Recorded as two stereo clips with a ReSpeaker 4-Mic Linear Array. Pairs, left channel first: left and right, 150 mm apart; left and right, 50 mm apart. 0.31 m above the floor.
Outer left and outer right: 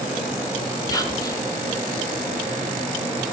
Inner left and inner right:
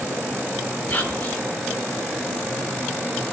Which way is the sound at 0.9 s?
25° left (ahead or behind).